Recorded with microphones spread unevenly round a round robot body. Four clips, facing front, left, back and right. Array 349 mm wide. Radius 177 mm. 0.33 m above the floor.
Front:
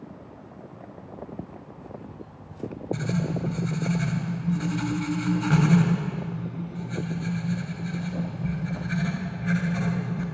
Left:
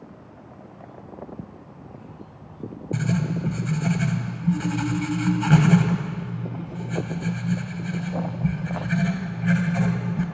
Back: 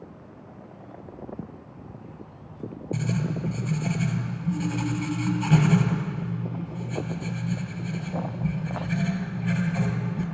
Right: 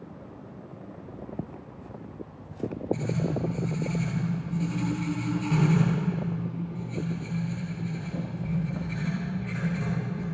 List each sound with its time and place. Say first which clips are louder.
2.9 s writing: left 6 dB, even; 95° left, 2.5 m